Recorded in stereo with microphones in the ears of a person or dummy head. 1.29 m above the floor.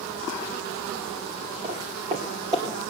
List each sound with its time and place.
1.6 s footsteps: 35° right (ahead or behind), 3 m; by 2.8 s 20° right (ahead or behind), 3 m